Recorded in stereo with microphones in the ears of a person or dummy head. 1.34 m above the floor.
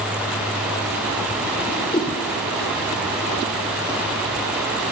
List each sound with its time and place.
1.7 s a whoosh: 25° left (ahead or behind), 1.2 m